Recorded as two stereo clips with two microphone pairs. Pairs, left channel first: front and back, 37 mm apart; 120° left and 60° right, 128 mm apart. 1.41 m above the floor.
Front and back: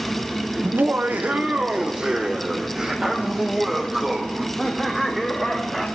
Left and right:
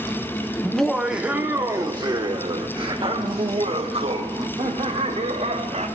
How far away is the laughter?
About 1.0 m.